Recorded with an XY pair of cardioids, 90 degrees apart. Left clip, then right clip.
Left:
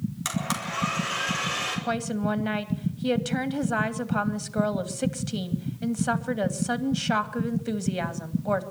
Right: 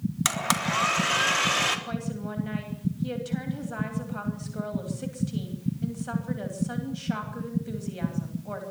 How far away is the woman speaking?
About 2.5 m.